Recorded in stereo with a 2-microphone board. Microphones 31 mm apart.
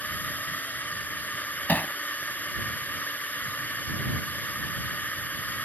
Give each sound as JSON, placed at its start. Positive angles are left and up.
{"t": 0.0, "sound": "a drone", "side_deg": 60}
{"t": 1.7, "sound": "hammering", "side_deg": 70}